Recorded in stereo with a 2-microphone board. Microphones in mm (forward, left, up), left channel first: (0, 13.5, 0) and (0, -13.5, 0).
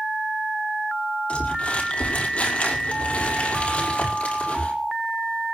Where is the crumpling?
50° left (ahead or behind), 5.5 m.